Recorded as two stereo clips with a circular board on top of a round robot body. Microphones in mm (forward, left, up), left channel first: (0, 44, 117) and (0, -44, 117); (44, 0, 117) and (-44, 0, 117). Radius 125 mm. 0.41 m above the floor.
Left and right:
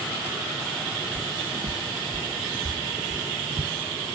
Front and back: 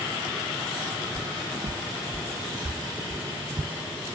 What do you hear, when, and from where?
1.1 s footsteps: 140° right; by 4.0 s 135° right